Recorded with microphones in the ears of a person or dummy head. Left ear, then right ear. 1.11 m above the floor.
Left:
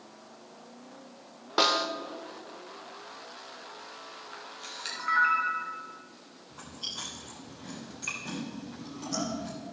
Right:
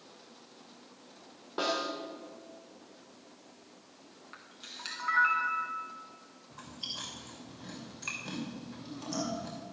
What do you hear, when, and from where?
1.6 s a snare drum: 45° left (ahead or behind), 1.0 m
4.3 s a camera shutter: 5° left (ahead or behind), 1.9 m
6.5 s chewing: 10° right (ahead or behind), 3 m